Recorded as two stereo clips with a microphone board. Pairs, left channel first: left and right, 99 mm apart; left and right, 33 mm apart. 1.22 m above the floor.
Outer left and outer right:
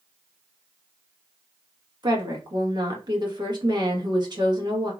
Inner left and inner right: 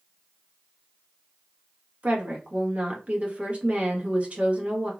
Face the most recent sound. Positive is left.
turn(degrees=-45)  # may be behind; listen again after turning